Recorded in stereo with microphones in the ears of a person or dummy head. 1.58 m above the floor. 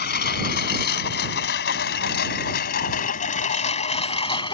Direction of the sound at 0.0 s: 65° left (ahead or behind).